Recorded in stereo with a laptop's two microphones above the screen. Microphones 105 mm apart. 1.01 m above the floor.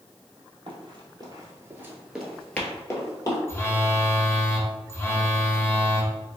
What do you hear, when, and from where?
0.7 s running footsteps: 55° right (ahead or behind), 1.6 m; by 3.4 s 40° left (ahead or behind), 1.4 m
3.5 s a phone buzzing: 20° left (ahead or behind), 0.7 m